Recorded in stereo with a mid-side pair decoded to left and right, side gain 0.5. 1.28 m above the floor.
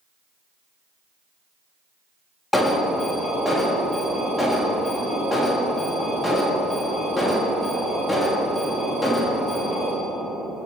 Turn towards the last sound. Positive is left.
turn(degrees=15)